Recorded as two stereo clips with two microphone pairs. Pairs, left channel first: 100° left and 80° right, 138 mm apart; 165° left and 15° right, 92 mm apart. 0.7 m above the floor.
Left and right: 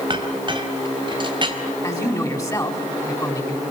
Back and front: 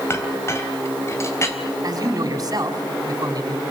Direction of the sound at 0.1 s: 135° right.